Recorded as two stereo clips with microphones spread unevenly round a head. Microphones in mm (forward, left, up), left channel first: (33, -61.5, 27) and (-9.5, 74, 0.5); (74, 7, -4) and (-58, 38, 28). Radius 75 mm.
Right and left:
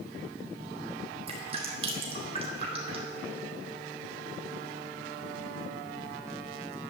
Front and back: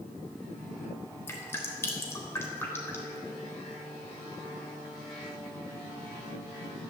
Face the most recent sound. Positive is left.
turn(degrees=60)